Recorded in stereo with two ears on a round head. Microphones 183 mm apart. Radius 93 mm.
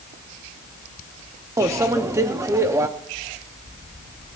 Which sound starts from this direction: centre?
A microwave, at 1.6 s.